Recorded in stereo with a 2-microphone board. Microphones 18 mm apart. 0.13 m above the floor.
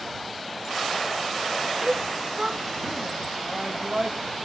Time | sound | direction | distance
1.8 | a shout | 55° right (ahead or behind) | ?